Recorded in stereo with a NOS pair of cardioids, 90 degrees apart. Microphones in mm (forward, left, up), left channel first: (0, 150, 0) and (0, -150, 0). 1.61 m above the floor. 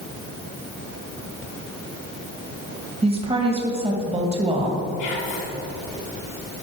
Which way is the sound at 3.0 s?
20° right.